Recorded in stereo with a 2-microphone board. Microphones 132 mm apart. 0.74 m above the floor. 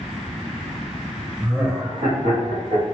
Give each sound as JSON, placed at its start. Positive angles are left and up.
{"t": 1.4, "sound": "laughter", "side_deg": -10, "distance_m": 0.7}